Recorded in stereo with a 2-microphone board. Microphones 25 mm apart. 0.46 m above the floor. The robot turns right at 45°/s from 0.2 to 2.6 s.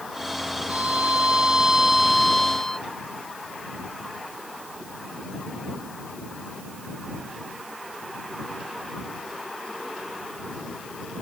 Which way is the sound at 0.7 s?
75° right.